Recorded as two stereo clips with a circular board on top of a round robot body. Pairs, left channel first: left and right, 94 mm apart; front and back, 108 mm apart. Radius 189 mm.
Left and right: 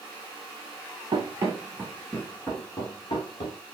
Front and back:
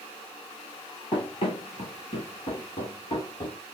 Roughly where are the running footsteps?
Ahead right.